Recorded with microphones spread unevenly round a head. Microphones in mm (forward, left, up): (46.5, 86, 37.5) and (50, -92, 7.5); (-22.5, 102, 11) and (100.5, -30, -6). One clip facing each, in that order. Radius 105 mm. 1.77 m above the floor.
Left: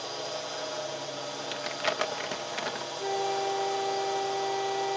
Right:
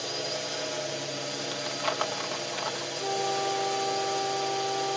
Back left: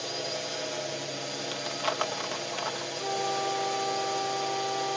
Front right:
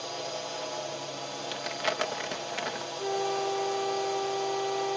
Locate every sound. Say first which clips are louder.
0.0 s a drone: right 2 dB, back left 1 dB; 155° right
1.5 s crumpling: left 2 dB, front right 1 dB; 25° left
3.0 s a flute: even, front right 2 dB; 15° left